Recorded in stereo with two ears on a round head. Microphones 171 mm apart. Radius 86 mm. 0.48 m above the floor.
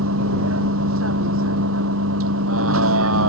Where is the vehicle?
80° right.